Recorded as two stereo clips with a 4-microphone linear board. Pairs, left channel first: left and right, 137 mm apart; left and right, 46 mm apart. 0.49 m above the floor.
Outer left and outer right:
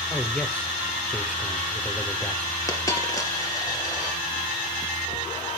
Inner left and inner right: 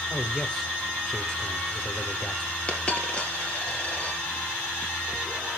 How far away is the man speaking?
About 1.5 m.